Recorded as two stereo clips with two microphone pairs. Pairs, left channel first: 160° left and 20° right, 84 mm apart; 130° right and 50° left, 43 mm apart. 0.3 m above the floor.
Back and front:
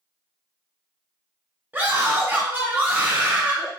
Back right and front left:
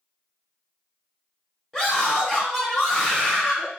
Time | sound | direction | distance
1.7 | a scream | 50° right | 1.0 m